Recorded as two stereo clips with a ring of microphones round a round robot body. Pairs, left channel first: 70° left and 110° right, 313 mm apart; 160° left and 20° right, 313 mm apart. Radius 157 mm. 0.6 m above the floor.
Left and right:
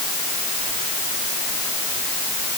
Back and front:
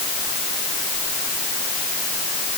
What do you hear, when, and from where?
Only background noise.